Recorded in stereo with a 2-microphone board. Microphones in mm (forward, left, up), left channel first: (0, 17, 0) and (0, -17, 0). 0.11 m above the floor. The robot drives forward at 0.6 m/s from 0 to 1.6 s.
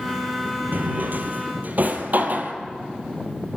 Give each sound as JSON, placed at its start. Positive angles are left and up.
{"t": 0.7, "sound": "a drawer", "side_deg": -65, "distance_m": 1.7}